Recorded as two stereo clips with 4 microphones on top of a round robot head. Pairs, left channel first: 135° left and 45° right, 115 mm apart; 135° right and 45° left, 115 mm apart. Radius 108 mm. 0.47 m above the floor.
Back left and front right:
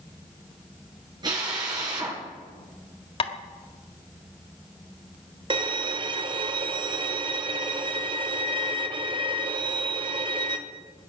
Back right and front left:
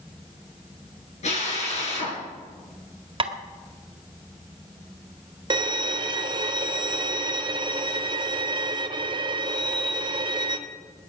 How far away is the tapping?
About 1.6 m.